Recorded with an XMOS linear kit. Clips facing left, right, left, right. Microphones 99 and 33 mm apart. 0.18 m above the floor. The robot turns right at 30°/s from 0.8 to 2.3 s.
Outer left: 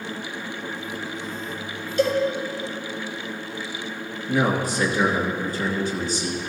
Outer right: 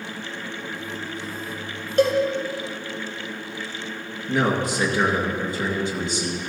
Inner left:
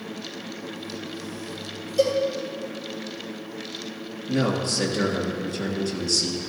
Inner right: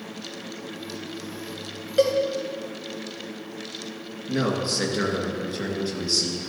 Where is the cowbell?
55° right (ahead or behind), 1.6 m; by 2.2 s 60° right (ahead or behind), 1.6 m.